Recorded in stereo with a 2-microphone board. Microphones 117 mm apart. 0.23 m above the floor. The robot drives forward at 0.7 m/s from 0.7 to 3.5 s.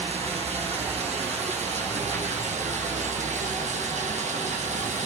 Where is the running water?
60° right (ahead or behind), 6.5 m; by 5.1 s 80° right, 6 m.